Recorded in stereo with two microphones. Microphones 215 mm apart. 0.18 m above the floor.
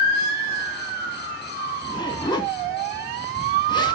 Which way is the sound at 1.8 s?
20° left (ahead or behind).